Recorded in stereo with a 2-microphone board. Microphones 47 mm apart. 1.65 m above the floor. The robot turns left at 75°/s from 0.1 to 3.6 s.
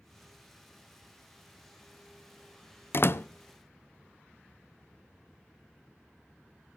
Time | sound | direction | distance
2.9 | a door slam | 55° left (ahead or behind) | 0.7 m